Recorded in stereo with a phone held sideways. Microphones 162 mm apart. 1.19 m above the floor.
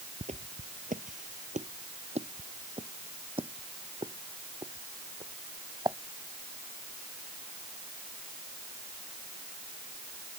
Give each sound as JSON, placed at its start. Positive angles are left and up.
{"t": 0.2, "sound": "footsteps", "side_deg": -40}